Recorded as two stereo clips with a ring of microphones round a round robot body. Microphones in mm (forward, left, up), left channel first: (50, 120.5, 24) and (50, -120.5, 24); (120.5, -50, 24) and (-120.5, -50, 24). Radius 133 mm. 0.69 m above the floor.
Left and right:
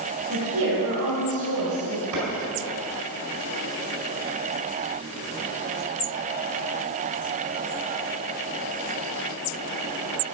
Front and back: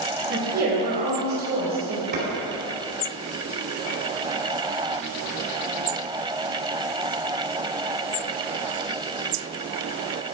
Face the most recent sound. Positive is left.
turn(degrees=-130)